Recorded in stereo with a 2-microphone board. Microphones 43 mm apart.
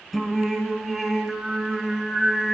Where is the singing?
5° right (ahead or behind), 0.8 m.